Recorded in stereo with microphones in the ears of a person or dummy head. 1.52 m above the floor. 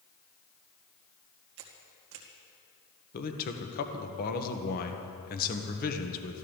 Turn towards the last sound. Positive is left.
turn(degrees=55)  # may be behind; listen again after turning